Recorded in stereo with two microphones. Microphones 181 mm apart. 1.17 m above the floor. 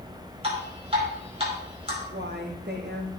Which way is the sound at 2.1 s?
70° right (ahead or behind).